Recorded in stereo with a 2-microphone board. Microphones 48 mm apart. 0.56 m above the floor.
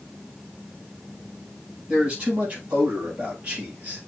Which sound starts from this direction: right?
A man speaking, at 1.9 s.